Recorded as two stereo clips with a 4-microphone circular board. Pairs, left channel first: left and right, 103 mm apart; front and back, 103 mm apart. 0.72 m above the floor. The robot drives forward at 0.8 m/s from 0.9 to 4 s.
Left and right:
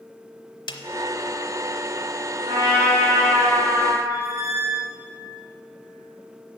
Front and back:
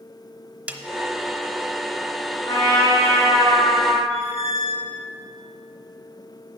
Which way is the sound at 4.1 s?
155° right.